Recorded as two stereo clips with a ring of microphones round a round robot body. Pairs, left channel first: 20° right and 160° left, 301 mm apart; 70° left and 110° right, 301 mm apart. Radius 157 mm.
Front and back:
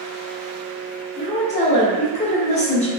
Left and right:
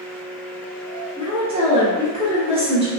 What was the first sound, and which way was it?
A woman speaking, 65° right.